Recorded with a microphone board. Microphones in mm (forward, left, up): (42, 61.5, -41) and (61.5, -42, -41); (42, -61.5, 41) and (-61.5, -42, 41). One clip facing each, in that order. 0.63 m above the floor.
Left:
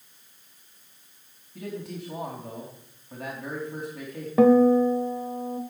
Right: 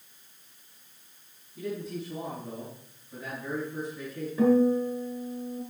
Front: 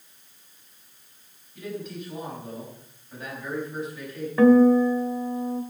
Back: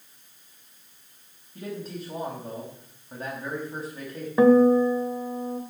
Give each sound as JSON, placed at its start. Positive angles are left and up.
{"t": 1.6, "sound": "a man speaking", "azimuth_deg": 115, "distance_m": 4.0}
{"t": 4.4, "sound": "a guitar", "azimuth_deg": 100, "distance_m": 1.5}